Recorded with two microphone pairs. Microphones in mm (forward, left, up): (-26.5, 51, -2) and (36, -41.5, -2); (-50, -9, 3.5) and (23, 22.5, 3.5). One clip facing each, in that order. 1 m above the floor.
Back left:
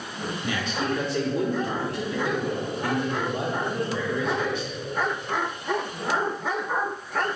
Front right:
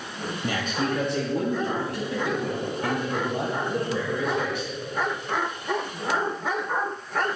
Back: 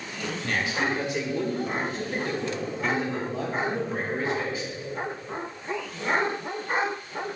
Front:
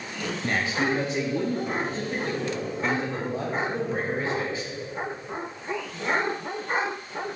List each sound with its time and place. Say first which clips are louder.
0.4 s a man speaking: front right 1 dB, front 2 dB; 25° right, 0.9 m